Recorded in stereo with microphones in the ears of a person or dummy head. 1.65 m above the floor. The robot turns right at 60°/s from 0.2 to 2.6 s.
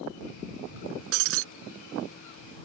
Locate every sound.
1.1 s breaking glass: 70° right (ahead or behind); by 1.4 s 75° right (ahead or behind)